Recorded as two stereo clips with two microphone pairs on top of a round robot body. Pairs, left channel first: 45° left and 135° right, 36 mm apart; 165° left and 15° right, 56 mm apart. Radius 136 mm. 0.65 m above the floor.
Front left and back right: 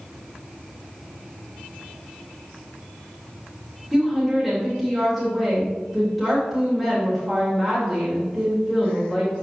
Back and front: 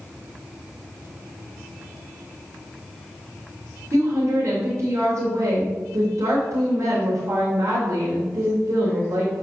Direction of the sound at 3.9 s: 45° right.